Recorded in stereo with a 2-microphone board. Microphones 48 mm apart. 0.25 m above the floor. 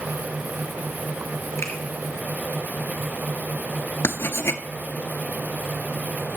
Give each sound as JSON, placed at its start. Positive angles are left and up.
{"t": 1.6, "sound": "a finger snap", "side_deg": 65, "distance_m": 3.5}
{"t": 4.0, "sound": "writing", "side_deg": 60, "distance_m": 0.7}